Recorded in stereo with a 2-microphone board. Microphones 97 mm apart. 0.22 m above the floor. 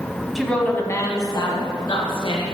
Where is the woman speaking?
Centre (ahead or behind), 1.1 m; by 2.4 s 60° left (ahead or behind), 3 m.